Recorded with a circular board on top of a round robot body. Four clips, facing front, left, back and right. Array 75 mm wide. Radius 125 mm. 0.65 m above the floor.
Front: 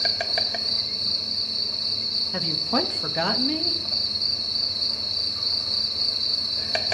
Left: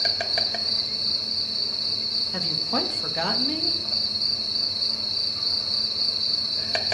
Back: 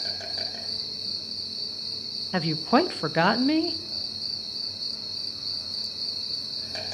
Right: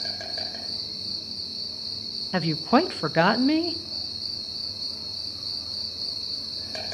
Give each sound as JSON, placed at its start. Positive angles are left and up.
{"t": 0.0, "sound": "an insect", "azimuth_deg": 40, "distance_m": 1.4}
{"t": 2.3, "sound": "a woman speaking", "azimuth_deg": -125, "distance_m": 0.6}